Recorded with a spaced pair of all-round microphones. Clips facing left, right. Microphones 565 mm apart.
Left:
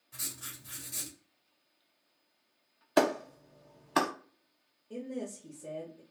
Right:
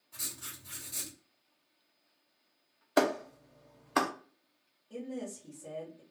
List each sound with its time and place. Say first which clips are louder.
0.1 s writing: left 1 dB; 40° left (ahead or behind), 0.9 m
3.0 s a clap: left 1 dB; 20° left (ahead or behind), 0.5 m
4.9 s a woman speaking: left 1 dB; 50° left (ahead or behind), 0.7 m